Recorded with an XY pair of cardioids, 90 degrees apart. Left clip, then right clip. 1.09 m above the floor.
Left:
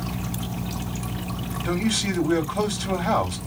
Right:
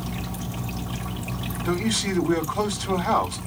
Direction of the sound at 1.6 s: 15° left.